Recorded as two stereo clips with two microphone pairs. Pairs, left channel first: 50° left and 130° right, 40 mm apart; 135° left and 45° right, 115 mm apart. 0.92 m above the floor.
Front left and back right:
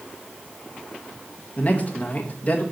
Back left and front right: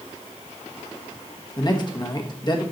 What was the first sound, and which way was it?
A man speaking, 95° left.